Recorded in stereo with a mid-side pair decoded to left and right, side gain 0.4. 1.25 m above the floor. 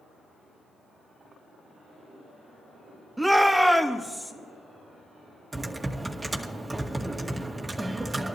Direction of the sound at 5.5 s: 20° right.